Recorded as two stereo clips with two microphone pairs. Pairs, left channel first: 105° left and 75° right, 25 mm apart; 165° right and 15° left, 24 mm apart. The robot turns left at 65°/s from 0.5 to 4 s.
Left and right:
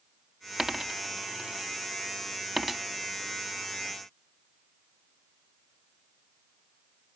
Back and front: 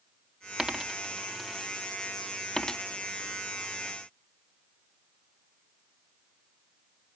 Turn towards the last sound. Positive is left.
turn(degrees=125)